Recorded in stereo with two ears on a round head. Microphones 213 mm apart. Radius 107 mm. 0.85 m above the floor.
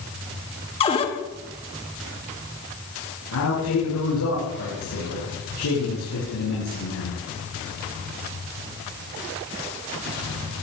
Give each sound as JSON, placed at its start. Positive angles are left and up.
{"t": 0.8, "sound": "a cupboard door", "side_deg": 25, "distance_m": 3.0}
{"t": 3.3, "sound": "a man speaking", "side_deg": 85, "distance_m": 9.5}